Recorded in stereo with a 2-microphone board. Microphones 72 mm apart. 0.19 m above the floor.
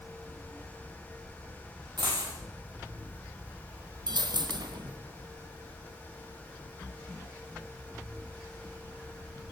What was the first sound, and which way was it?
A dropped coin, 85° right.